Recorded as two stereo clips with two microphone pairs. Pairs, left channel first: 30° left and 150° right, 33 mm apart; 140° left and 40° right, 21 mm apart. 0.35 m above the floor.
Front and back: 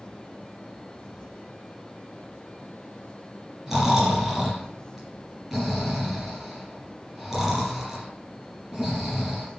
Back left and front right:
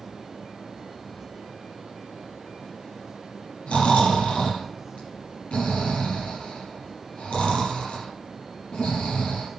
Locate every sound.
3.7 s snoring: 130° left, 5.5 m